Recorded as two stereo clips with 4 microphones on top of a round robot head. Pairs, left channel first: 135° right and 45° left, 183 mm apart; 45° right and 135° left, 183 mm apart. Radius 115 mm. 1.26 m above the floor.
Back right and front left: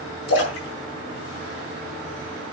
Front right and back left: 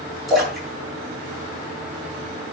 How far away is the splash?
About 5.5 m.